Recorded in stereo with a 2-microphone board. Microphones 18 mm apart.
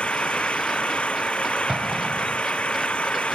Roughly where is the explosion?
Right.